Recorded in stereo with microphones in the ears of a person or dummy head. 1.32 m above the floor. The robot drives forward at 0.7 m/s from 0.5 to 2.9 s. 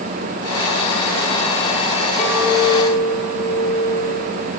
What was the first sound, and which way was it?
A clink, 5° left (ahead or behind).